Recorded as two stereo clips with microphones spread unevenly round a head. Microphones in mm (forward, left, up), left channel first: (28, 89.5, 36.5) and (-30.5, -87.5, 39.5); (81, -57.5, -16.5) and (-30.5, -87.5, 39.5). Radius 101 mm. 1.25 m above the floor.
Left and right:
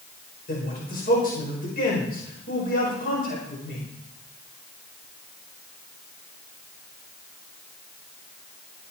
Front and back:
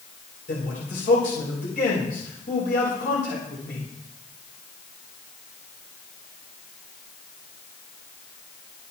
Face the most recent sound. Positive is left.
turn(degrees=25)